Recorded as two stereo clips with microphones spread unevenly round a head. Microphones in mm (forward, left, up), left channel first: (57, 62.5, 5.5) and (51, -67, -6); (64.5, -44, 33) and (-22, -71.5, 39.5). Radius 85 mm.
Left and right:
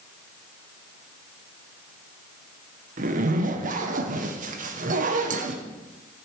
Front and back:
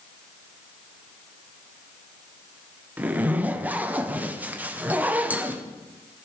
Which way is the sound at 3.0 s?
90° right.